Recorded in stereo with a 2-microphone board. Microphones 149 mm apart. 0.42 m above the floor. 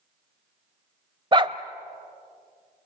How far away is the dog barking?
About 0.8 m.